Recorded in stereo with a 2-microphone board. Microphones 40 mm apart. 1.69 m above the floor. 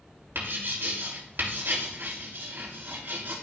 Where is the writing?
65° right (ahead or behind), 3 m.